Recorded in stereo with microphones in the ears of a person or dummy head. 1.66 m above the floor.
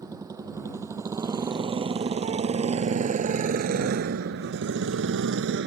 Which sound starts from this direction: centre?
A motorcycle, at 0.0 s.